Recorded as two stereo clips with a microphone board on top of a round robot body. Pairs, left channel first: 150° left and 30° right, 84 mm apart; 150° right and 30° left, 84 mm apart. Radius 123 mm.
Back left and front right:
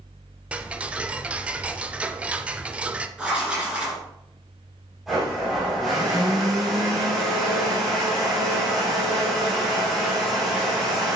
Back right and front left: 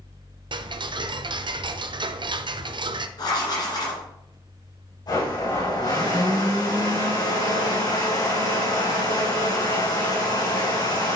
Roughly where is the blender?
Behind right.